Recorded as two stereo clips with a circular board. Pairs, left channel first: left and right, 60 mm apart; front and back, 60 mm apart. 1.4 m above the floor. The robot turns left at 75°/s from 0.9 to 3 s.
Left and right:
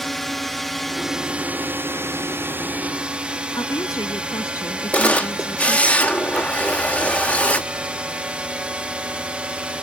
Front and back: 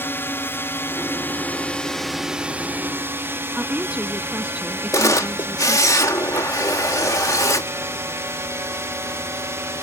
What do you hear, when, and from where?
0.0 s a drone: 5° left; by 9.8 s 155° right
3.6 s a woman speaking: 110° left
4.9 s a camera shutter: 25° left